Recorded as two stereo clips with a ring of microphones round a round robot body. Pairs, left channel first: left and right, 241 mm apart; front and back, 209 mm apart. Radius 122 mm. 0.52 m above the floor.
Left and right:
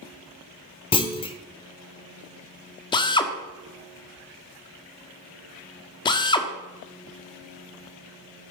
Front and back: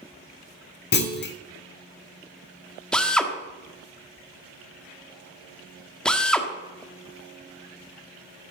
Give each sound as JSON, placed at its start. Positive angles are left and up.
{"t": 0.9, "sound": "a clunk", "azimuth_deg": 25, "distance_m": 1.1}
{"t": 2.9, "sound": "a drill", "azimuth_deg": 75, "distance_m": 1.3}